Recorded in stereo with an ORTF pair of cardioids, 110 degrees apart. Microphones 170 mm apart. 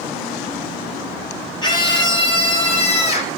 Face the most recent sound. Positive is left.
turn(degrees=40)